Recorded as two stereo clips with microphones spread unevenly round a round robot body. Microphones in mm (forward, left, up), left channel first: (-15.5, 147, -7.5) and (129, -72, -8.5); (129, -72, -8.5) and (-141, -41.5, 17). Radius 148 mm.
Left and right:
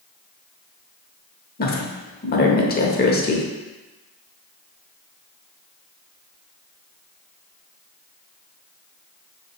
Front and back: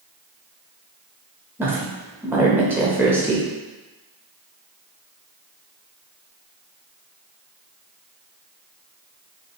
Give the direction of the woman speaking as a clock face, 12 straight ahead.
9 o'clock.